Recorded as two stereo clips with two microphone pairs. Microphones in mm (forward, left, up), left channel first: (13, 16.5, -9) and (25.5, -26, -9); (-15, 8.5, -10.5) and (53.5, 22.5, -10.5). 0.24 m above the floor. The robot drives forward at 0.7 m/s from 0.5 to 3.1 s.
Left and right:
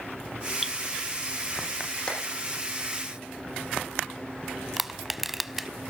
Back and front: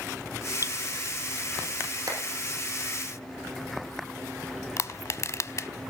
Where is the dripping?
10° left, 1.1 m.